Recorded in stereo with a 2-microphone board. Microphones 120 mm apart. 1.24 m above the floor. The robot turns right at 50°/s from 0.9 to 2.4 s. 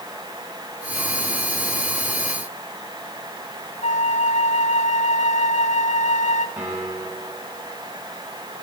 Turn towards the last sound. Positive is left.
turn(degrees=-10)  # may be behind; listen again after turning